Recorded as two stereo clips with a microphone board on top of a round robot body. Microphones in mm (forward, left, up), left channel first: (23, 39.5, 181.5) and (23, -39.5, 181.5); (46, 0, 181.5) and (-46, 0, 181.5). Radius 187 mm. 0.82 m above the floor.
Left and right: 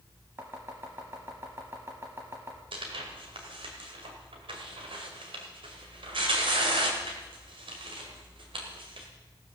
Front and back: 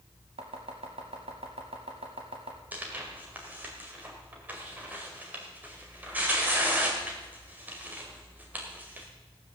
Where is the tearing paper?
105° right, 1.6 m.